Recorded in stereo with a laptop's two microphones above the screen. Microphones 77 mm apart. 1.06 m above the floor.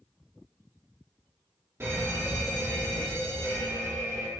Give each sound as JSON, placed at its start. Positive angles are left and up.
{"t": 1.8, "sound": "a fire alarm", "side_deg": -35, "distance_m": 3.5}